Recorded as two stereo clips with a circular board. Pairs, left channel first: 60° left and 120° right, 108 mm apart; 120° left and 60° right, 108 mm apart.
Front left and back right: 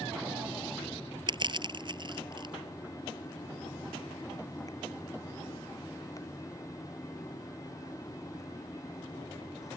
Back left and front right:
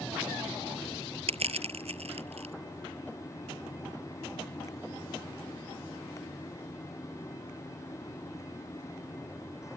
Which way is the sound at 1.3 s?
75° right.